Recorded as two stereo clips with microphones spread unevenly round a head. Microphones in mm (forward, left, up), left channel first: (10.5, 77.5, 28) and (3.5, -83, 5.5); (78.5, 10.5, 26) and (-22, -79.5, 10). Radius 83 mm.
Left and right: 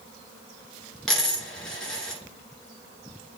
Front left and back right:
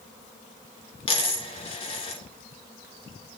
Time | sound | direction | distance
1.1 | a dropped coin | 5° left | 2 m